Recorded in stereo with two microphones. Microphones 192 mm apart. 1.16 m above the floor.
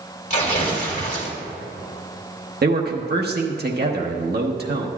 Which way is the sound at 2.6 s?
60° right (ahead or behind).